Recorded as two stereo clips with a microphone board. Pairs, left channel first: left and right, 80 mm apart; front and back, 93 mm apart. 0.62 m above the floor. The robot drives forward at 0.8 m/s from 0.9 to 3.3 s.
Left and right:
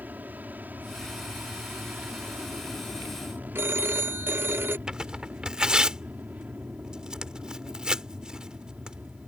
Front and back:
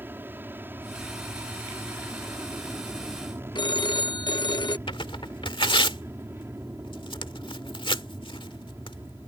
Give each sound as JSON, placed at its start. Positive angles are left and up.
{"t": 0.0, "sound": "an aircraft", "azimuth_deg": -135}
{"t": 3.5, "sound": "a phone ringing", "azimuth_deg": -30}
{"t": 4.9, "sound": "tearing paper", "azimuth_deg": -10}